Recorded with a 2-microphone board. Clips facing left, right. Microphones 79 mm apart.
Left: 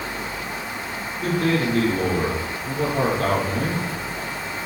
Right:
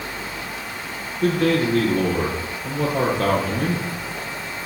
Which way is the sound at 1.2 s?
80° right.